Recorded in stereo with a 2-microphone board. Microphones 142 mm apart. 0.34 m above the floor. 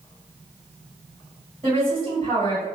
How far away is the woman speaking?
About 1.6 m.